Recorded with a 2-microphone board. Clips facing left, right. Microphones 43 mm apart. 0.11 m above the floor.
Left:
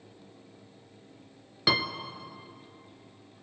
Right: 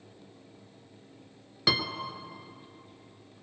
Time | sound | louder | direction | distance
1.7 | a piano | left 2 dB | 5° left (ahead or behind) | 0.9 m